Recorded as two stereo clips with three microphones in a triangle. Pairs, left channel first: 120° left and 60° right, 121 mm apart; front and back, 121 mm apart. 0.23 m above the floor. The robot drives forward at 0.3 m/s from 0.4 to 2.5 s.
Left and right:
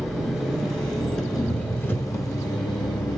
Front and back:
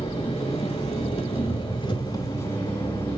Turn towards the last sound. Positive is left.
turn(degrees=70)